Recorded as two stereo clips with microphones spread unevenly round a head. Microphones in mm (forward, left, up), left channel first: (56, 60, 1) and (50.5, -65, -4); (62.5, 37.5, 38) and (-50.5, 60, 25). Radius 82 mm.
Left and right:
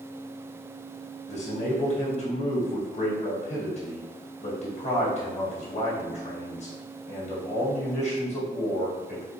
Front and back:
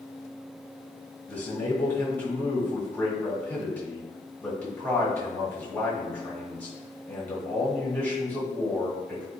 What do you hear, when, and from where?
1.3 s a man speaking: 65° left, 1.4 m